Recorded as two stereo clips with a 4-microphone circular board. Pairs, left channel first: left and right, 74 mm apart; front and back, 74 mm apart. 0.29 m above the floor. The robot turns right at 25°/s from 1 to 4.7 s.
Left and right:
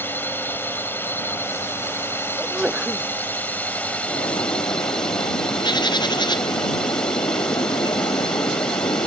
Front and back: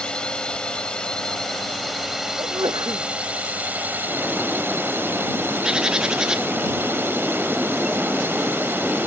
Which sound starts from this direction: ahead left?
A drone, at 0.0 s.